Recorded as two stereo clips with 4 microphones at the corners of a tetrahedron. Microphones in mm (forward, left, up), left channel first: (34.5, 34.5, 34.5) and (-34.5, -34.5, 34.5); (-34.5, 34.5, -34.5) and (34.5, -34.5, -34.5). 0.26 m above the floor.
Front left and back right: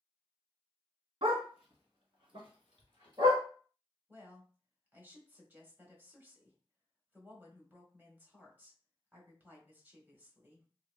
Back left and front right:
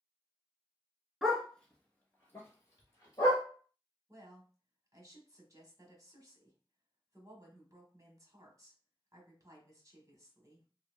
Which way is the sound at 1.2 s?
135° right.